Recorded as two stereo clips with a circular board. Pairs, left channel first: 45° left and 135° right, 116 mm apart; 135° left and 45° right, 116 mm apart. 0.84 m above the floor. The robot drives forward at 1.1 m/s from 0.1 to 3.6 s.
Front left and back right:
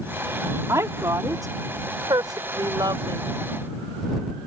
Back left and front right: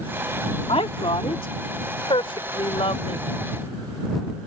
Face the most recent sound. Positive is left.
turn(degrees=175)